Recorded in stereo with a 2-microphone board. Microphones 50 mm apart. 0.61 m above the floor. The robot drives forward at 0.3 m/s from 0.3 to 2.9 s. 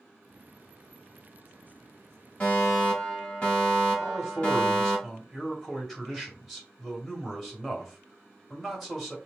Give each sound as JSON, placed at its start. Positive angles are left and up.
{"t": 2.4, "sound": "a fire alarm", "side_deg": 20, "distance_m": 2.0}
{"t": 4.0, "sound": "a man speaking", "side_deg": 0, "distance_m": 2.5}